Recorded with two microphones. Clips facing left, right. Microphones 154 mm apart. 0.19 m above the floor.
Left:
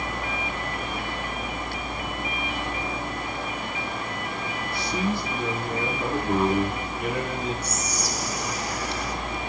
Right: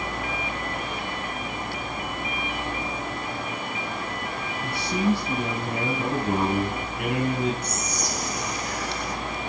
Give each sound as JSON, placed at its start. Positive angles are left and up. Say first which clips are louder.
{"t": 4.6, "sound": "a man speaking", "louder": "right 4 dB", "side_deg": -65, "distance_m": 4.5}
{"t": 7.6, "sound": "whispering", "louder": "even", "side_deg": 5, "distance_m": 3.0}